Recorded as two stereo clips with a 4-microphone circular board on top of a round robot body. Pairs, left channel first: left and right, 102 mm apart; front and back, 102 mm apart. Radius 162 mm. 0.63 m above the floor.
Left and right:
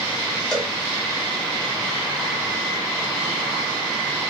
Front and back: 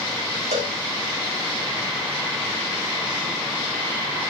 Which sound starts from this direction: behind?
A cowbell, at 0.5 s.